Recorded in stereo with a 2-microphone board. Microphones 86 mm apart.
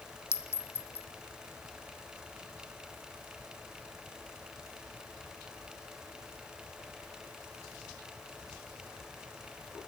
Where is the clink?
30° left (ahead or behind), 0.7 m.